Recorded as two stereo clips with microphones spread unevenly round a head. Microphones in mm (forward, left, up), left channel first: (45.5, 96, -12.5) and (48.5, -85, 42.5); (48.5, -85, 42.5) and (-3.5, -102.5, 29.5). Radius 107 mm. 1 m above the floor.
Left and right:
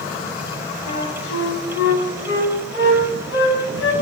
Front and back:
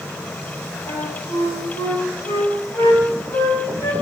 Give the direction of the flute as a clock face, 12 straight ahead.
10 o'clock.